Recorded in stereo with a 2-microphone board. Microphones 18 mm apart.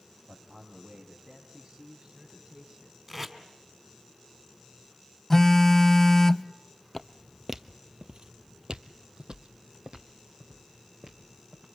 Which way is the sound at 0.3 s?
70° right (ahead or behind).